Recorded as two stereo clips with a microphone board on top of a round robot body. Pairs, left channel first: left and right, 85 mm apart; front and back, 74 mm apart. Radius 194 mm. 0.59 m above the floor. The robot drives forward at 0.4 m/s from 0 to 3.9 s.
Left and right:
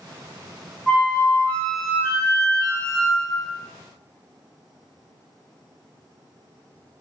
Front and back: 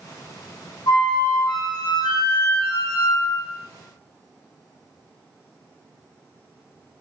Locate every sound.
0.9 s a flute: straight ahead, 1.7 m; by 3.6 s 5° left, 0.6 m